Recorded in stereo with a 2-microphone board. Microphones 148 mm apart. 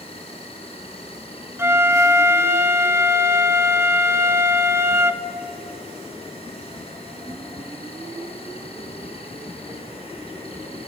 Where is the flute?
15° right (ahead or behind), 0.7 m.